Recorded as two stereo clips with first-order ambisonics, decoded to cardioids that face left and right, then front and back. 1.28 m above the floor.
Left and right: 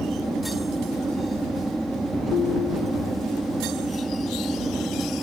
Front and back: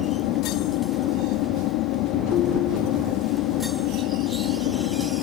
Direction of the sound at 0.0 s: 5° right.